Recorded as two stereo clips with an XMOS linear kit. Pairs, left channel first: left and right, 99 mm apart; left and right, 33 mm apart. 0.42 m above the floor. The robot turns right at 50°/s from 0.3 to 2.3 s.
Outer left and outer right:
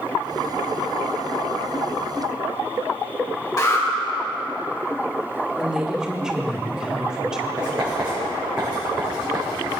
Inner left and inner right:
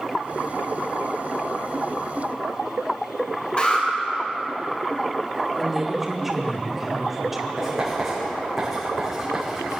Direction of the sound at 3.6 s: 45° left (ahead or behind).